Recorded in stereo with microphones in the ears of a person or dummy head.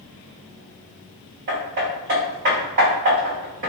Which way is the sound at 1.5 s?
50° right (ahead or behind).